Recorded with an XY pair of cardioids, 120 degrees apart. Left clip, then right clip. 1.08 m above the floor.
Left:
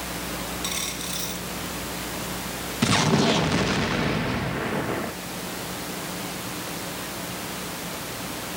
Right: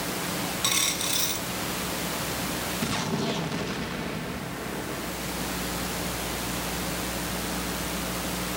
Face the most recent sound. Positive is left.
turn(degrees=55)